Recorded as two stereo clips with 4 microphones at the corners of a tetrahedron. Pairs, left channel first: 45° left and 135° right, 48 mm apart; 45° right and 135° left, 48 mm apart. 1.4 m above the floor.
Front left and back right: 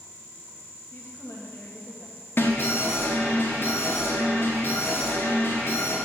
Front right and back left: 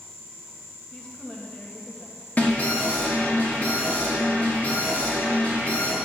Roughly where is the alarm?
Ahead.